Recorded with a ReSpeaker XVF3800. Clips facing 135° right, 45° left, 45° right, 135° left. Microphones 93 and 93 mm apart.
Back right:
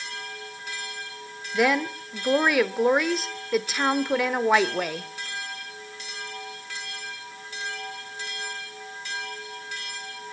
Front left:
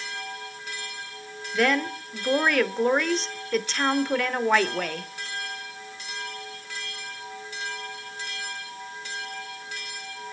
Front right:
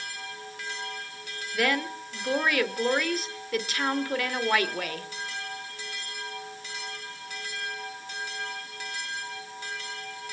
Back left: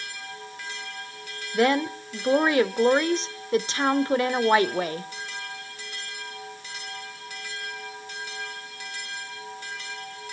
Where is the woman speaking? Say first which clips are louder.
Back right 1 dB, back left 6 dB; 150° left, 0.9 m.